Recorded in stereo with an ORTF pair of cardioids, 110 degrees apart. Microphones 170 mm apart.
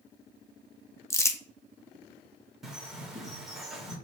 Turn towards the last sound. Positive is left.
turn(degrees=-5)